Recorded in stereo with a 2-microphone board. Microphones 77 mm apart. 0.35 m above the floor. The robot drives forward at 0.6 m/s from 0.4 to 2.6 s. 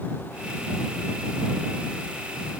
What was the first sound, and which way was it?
Only background noise.